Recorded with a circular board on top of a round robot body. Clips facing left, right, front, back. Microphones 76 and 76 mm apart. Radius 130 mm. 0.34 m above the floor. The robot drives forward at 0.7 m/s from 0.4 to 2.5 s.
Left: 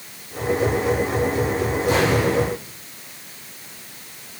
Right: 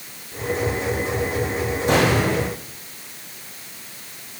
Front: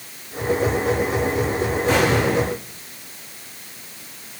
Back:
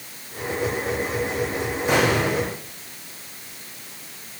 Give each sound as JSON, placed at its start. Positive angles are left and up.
{"t": 1.9, "sound": "an explosion", "azimuth_deg": -100, "distance_m": 9.0}